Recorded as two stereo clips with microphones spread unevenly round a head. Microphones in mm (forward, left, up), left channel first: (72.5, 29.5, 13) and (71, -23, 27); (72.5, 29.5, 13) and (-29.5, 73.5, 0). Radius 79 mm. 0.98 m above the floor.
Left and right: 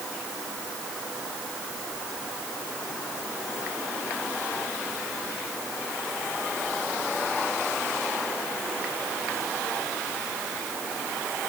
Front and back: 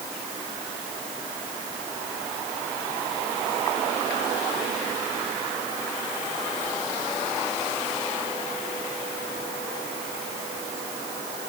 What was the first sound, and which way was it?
Only background noise.